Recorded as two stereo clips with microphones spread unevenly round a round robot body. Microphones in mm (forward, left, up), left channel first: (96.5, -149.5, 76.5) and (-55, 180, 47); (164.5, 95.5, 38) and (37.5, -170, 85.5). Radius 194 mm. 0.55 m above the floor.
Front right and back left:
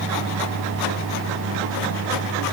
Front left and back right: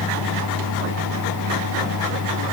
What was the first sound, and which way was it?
Only background noise.